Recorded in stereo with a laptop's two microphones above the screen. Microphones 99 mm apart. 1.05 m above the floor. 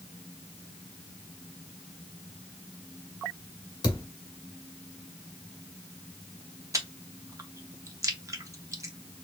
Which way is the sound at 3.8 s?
45° left (ahead or behind).